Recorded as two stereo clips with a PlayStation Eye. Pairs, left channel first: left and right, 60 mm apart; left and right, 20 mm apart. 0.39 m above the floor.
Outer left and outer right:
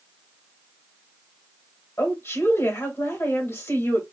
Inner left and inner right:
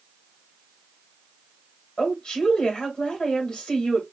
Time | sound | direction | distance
2.0 | a woman speaking | 45° left (ahead or behind) | 2.5 m